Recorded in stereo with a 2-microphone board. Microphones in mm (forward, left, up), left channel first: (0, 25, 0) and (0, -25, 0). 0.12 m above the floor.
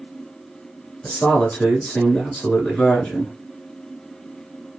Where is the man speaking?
25° left (ahead or behind), 1.6 m.